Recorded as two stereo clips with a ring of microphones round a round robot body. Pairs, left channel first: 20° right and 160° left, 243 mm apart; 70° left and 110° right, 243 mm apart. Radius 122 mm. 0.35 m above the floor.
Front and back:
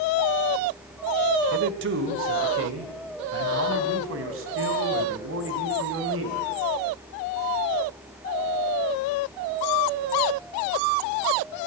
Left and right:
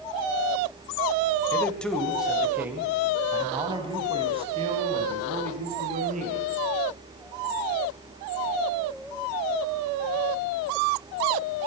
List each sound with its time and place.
1.5 s a man speaking: 145° left, 1.8 m; by 6.5 s 170° right, 4 m